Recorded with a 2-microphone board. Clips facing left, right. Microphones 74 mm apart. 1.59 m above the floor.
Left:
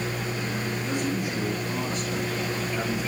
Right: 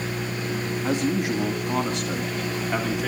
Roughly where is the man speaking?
Right.